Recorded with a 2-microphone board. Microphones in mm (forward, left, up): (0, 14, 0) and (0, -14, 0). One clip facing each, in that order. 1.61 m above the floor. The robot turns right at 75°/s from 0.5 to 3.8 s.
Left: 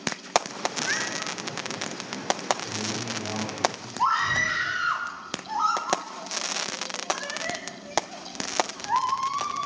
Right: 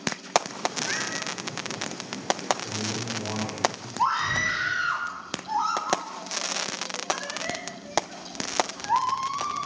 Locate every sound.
0.8 s a cat meowing: 110° left, 5.5 m; by 1.3 s 150° left, 5.5 m
2.6 s a man speaking: 145° right, 7.5 m; by 3.9 s 55° right, 7.5 m
4.0 s a scream: 15° right (ahead or behind), 7 m